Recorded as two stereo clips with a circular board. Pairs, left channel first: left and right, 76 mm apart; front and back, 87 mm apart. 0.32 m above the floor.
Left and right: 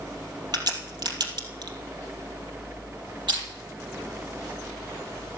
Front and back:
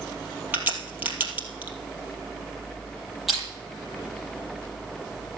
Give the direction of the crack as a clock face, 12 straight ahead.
4 o'clock.